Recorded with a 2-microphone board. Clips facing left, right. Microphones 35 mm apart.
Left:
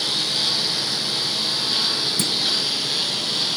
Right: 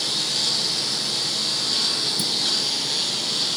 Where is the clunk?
60° left (ahead or behind).